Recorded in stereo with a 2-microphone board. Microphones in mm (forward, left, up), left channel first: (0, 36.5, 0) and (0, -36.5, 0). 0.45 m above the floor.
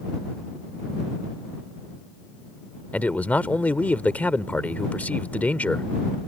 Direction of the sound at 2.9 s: 20° left (ahead or behind).